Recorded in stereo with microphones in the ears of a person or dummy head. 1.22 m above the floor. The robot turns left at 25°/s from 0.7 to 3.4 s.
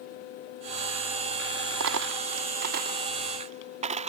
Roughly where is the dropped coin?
Right.